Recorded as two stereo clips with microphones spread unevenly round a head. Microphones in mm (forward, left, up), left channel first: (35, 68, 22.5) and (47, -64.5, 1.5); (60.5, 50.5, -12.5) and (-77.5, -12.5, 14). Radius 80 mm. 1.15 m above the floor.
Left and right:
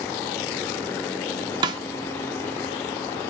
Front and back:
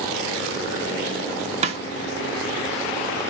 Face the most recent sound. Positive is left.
turn(degrees=-110)